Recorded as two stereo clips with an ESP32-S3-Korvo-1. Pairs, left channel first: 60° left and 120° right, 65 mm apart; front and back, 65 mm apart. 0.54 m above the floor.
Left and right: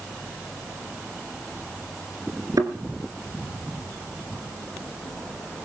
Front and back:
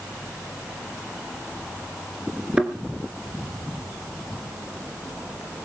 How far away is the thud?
About 2.5 m.